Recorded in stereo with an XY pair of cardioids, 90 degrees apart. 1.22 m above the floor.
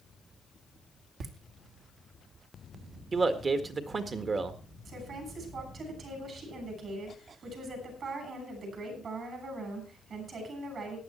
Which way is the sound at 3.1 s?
50° right.